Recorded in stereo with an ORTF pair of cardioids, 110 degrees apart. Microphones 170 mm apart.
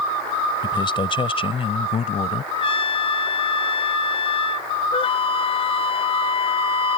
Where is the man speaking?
25° left; by 2.4 s 40° left.